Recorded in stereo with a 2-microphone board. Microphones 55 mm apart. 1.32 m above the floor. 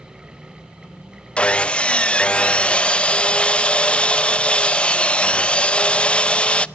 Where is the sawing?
25° left (ahead or behind), 0.5 m.